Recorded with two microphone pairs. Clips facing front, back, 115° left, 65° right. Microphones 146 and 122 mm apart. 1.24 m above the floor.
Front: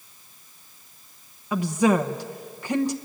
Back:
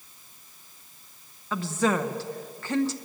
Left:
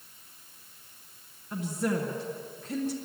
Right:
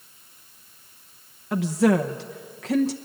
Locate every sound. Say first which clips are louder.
1.5 s a woman speaking: front 5 dB, right 10 dB; 75° right, 0.9 m